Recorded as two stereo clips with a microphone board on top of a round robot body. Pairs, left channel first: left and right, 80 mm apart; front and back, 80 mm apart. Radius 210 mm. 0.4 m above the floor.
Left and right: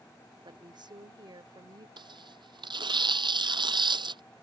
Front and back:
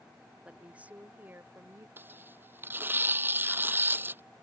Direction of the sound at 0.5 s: 105° right.